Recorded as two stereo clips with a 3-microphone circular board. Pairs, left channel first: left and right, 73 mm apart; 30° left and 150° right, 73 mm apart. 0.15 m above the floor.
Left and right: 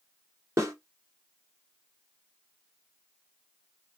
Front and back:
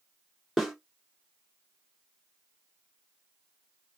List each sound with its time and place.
0.6 s a snare drum: 65° right, 2 m